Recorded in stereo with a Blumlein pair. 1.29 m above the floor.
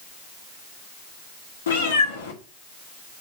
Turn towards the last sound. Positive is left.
turn(degrees=65)